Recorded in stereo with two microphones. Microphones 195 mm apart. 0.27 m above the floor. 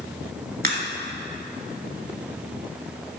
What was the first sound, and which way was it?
A crack, 55° right (ahead or behind).